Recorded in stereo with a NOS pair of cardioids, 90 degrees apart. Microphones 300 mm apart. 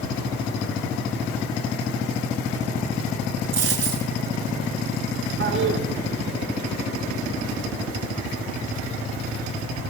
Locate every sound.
3.5 s a dropped coin: 55° right, 6.5 m
5.4 s a toilet flushing: 40° right, 3 m